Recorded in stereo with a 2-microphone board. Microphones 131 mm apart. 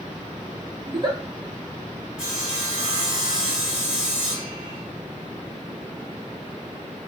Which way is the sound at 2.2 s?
5° right (ahead or behind).